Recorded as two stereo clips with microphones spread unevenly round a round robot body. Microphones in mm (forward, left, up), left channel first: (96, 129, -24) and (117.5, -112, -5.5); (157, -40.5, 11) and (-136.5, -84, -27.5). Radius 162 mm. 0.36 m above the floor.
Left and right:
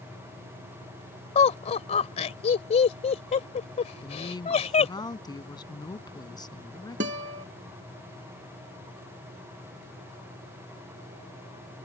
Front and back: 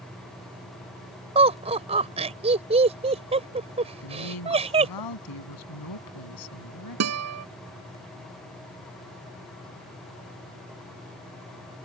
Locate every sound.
1.4 s laughter: 140° left
4.0 s a woman speaking: 25° left
7.0 s a guitar: 140° right